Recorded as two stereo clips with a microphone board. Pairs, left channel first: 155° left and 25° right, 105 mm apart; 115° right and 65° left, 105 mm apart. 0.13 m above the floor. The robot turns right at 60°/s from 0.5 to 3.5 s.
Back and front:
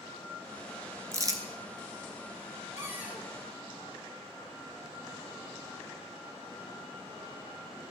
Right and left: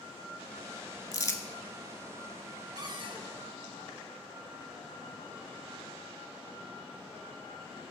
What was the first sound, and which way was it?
Crumpling, 75° right.